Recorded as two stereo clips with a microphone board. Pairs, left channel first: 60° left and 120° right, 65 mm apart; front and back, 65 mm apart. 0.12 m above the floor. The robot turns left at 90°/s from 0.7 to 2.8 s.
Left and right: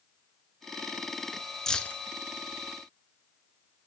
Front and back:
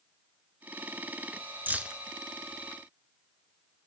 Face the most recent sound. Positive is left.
turn(degrees=35)